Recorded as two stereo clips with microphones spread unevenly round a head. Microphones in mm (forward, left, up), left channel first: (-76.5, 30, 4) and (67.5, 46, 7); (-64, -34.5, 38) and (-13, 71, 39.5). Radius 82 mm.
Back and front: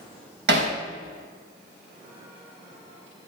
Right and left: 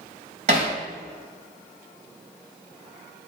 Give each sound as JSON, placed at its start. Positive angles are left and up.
{"t": 0.5, "sound": "hammering", "azimuth_deg": 15, "distance_m": 3.5}